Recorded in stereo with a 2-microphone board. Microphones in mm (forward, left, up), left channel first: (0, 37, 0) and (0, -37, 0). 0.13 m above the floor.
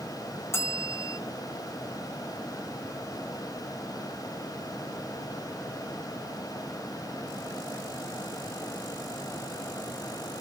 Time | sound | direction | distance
0.5 | a bell | 35° left (ahead or behind) | 1.1 m